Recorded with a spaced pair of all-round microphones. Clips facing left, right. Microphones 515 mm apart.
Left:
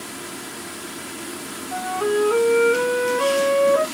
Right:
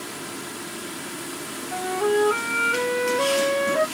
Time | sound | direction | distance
1.7 | a flute | 45° right (ahead or behind) | 0.6 m